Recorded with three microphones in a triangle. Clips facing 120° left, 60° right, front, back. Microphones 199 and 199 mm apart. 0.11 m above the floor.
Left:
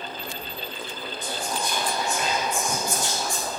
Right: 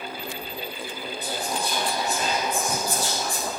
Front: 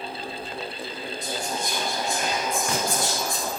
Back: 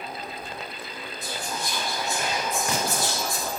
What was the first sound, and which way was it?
Whispering, 95° right.